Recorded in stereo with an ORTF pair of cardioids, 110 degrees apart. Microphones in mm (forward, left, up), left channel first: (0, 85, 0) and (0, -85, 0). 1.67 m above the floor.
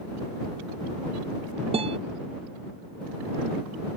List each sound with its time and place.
1.7 s a guitar: 35° right